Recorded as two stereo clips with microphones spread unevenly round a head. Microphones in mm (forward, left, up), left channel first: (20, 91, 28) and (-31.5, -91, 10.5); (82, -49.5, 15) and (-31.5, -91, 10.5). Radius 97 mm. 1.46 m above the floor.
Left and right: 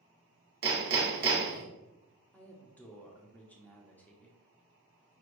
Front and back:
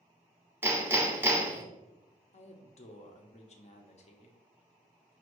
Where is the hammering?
95° right, 1.1 m.